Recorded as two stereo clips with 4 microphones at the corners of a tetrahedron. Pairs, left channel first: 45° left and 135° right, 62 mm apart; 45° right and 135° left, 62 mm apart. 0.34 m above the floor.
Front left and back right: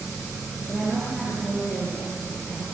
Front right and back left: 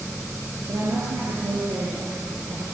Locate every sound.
0.7 s a woman speaking: 130° left, 6.5 m